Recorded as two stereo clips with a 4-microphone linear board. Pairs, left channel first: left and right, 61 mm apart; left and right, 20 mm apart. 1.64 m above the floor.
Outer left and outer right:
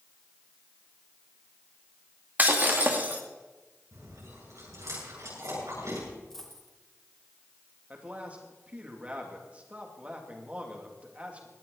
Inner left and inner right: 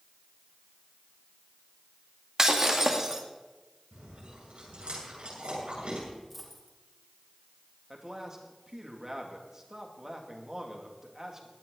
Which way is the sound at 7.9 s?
25° right (ahead or behind).